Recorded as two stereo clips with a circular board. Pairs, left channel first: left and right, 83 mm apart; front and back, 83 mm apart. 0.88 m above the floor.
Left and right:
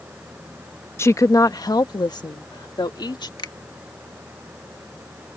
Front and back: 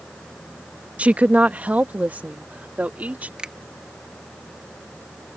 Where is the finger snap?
105° left.